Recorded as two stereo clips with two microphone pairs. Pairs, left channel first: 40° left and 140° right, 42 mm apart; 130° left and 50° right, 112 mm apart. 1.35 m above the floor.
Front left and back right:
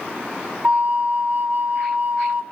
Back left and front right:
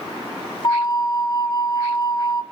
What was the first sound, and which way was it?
A flute, 175° left.